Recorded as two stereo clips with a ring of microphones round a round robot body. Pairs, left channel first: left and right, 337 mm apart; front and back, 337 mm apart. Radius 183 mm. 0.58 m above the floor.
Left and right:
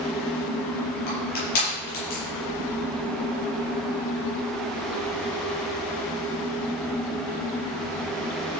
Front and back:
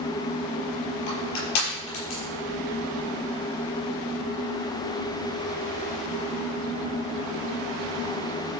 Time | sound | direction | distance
1.1 | crushing | 25° left | 7 m